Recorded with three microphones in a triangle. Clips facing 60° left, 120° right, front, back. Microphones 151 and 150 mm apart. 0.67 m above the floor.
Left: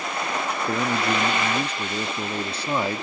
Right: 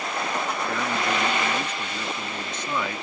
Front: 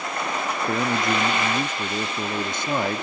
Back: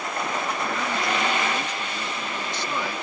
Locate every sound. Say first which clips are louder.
0.7 s a man speaking: left 5 dB, front 3 dB; 15° left